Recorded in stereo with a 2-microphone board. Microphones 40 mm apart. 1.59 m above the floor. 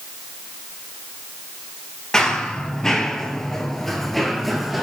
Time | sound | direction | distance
2.1 | running footsteps | 15° left (ahead or behind) | 1.9 m